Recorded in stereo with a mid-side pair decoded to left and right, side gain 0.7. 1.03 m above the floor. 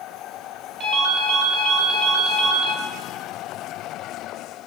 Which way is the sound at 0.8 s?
45° right.